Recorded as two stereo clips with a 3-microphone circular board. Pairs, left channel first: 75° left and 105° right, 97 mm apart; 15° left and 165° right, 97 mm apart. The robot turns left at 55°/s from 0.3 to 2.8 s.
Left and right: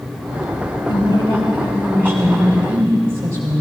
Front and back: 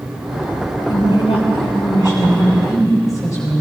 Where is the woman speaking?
60° left, 4 m; by 3.6 s 45° right, 4 m.